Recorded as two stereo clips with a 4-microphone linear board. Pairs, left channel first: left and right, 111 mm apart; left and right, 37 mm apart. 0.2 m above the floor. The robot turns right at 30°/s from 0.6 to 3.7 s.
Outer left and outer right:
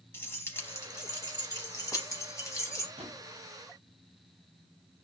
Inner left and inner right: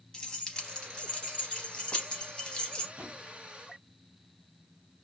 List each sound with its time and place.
0.1 s keys jangling: 20° left (ahead or behind), 0.7 m; by 2.9 s 25° left (ahead or behind), 0.7 m
3.0 s a drawer: 60° right (ahead or behind), 1.2 m; by 3.2 s 70° right (ahead or behind), 1.2 m